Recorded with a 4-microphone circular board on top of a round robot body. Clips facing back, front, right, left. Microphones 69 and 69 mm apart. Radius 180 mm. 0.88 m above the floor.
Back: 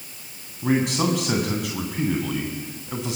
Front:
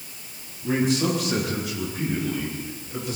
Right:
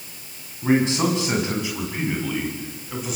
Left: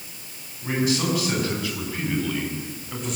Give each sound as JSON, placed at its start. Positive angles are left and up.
{"t": 0.6, "sound": "a man speaking", "azimuth_deg": -150, "distance_m": 8.0}